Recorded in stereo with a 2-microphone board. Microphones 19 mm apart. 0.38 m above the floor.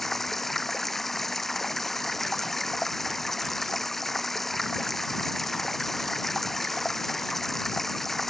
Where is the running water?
15° left (ahead or behind).